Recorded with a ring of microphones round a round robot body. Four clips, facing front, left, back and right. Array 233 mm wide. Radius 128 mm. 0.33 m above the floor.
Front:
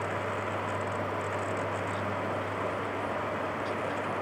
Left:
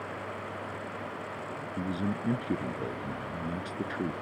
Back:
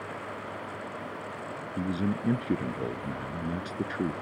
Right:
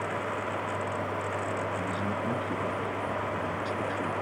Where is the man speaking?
160° left.